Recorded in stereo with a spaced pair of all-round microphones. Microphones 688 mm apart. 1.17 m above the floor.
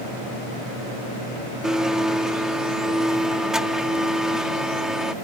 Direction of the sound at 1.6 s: Centre (ahead or behind).